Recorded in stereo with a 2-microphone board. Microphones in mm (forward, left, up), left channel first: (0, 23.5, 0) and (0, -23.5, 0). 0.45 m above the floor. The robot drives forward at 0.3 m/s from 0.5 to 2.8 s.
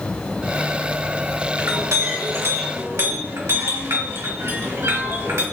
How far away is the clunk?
I don't hear a clunk.